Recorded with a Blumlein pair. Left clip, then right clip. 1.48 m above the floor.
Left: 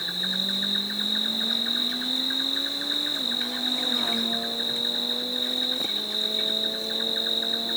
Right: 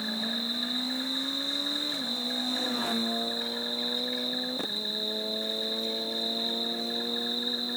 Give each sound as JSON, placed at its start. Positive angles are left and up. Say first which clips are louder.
{"t": 0.0, "sound": "an insect", "louder": "left 5 dB", "azimuth_deg": 30, "distance_m": 1.2}